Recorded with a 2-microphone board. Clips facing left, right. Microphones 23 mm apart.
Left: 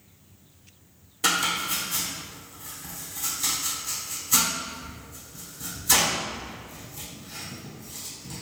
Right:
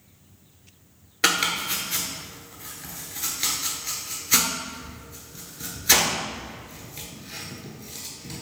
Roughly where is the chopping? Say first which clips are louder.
Right 2 dB; right.